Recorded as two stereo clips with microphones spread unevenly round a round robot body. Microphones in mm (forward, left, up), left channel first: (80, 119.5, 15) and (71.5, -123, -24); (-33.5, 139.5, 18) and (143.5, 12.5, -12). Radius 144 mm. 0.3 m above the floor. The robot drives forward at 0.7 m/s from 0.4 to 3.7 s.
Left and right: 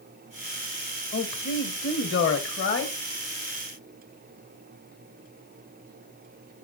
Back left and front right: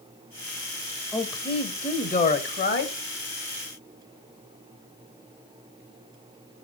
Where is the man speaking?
65° left, 1.7 m; by 3.0 s 130° left, 1.8 m.